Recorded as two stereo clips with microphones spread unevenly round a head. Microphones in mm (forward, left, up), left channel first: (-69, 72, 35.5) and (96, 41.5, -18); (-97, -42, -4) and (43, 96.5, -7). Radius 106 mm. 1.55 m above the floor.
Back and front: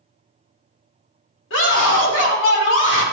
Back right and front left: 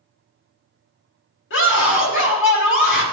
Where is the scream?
160° right, 4 m.